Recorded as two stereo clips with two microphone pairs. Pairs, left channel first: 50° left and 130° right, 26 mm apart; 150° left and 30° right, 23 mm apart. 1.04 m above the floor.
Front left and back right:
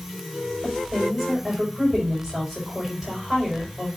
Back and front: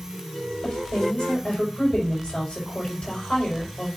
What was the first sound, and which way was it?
A woman speaking, 140° left.